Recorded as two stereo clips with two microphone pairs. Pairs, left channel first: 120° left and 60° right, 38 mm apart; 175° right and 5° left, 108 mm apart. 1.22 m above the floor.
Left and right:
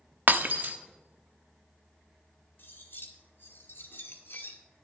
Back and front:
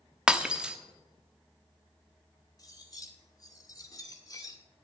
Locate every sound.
0.3 s breaking glass: 75° right, 0.9 m
2.6 s cutlery clinking: 130° left, 2 m